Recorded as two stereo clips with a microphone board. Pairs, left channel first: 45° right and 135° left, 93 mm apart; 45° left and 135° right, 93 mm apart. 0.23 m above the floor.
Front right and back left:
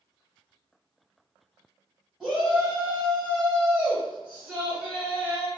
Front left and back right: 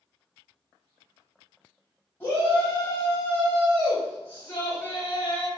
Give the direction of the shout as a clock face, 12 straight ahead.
10 o'clock.